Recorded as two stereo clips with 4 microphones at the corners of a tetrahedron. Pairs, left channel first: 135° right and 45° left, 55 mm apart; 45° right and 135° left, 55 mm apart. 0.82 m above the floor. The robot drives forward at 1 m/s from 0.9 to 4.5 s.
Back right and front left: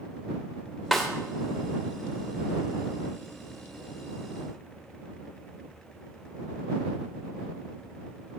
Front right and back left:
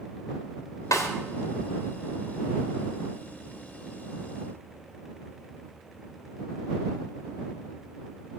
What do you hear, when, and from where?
0.9 s a snare drum: 45° right, 3 m; by 1.1 s 50° right, 3 m